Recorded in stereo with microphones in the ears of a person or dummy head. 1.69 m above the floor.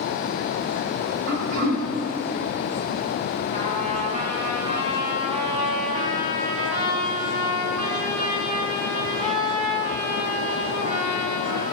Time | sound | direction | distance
1.3 | throat clearing | 50° right (ahead or behind) | 1.1 m
3.5 | a trumpet | 30° right (ahead or behind) | 2.5 m